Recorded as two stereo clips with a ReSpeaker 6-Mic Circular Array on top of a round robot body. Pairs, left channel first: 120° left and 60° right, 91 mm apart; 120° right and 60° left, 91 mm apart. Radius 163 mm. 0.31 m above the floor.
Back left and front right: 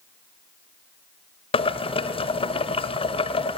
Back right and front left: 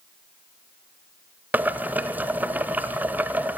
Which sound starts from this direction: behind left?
Boiling, at 1.5 s.